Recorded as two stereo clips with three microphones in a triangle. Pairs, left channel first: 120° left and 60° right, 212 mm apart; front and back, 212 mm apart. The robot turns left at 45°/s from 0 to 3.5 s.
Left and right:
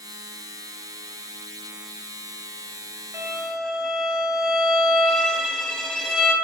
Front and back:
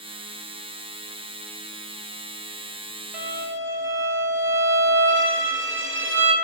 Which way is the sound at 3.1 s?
135° right.